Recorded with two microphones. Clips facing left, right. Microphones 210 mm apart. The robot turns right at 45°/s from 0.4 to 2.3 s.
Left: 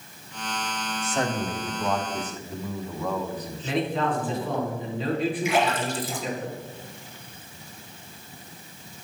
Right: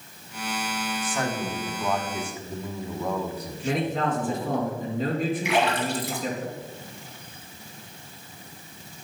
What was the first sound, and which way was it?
A man speaking, 140° left.